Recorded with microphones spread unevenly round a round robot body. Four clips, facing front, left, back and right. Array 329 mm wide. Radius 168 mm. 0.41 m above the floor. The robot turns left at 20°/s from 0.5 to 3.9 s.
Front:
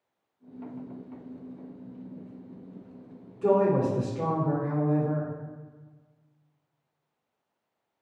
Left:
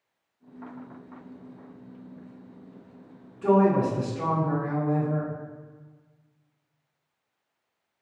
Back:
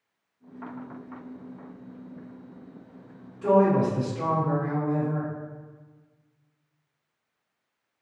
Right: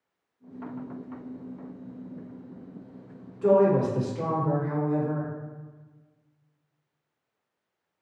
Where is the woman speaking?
55° right, 1.1 m; by 5.3 s 65° right, 1.1 m.